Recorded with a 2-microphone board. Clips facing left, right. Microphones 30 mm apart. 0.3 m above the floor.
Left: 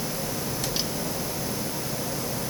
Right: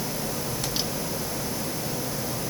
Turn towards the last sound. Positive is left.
No sound to turn to.